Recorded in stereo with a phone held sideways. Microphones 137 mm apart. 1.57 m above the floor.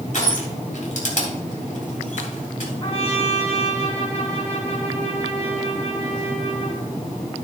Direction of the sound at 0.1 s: 65° left (ahead or behind).